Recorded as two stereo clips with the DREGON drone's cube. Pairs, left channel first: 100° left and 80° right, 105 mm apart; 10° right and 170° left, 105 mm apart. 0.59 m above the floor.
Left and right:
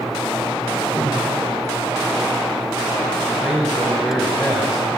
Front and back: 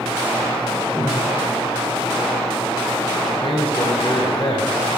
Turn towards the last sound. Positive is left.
turn(degrees=10)